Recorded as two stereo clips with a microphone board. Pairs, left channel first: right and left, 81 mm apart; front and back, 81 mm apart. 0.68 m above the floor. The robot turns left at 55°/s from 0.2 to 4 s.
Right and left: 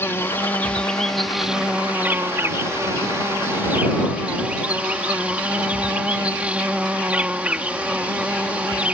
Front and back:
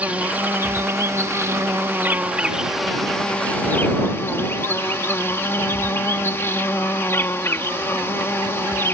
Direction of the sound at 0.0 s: 120° right.